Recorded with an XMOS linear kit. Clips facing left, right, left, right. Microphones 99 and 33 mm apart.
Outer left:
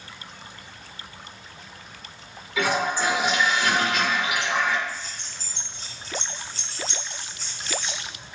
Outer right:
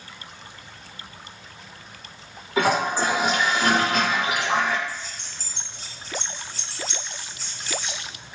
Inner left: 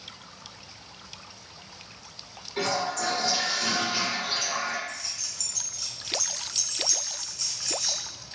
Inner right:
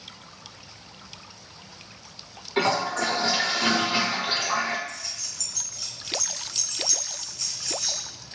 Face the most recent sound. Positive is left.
turn(degrees=-5)  # may be behind; listen again after turning